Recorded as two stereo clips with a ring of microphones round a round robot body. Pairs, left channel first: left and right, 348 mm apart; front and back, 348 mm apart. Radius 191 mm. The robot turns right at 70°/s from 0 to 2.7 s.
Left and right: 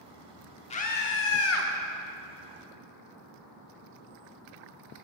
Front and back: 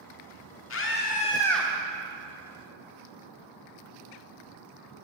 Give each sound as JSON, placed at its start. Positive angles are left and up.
{"t": 0.7, "sound": "a scream", "azimuth_deg": 25, "distance_m": 1.5}